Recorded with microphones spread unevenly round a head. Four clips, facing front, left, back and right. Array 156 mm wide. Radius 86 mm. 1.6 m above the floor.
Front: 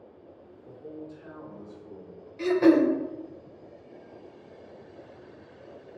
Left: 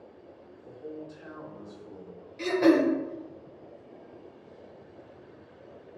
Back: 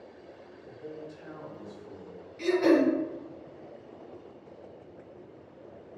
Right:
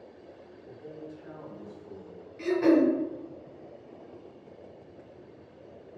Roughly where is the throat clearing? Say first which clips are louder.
Even, front 3 dB; ahead left.